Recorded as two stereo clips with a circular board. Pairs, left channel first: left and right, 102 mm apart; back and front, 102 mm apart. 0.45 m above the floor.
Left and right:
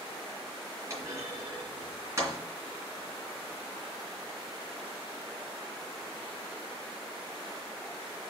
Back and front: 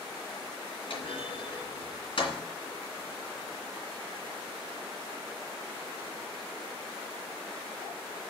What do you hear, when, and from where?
0.9 s a clunk: 150° right, 2.5 m